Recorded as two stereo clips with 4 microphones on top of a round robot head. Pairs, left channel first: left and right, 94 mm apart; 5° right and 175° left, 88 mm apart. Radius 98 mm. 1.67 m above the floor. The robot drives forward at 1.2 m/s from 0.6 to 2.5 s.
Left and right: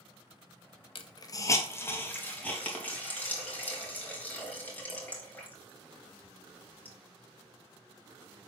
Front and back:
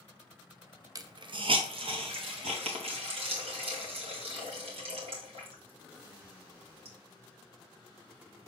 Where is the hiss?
120° left, 0.7 m; by 7.0 s 165° left, 2.5 m.